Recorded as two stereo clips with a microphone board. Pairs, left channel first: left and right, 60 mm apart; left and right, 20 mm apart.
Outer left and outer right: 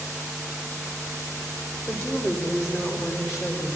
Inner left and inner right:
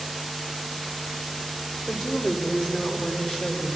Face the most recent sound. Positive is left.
turn(degrees=60)  # may be behind; listen again after turning